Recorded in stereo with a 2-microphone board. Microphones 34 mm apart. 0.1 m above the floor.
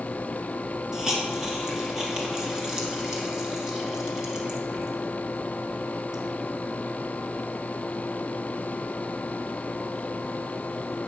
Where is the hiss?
20° right (ahead or behind), 1.6 m.